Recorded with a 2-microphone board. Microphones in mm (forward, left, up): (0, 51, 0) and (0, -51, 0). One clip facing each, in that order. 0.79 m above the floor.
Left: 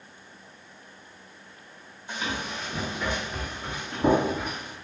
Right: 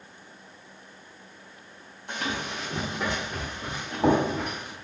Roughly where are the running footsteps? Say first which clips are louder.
Right 1 dB; right.